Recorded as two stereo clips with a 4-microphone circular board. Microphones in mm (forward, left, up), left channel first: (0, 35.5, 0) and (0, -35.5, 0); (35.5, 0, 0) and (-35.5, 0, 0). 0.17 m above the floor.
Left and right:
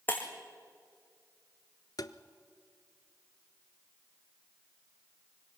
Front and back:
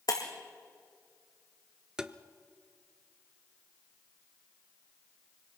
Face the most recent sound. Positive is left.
turn(degrees=105)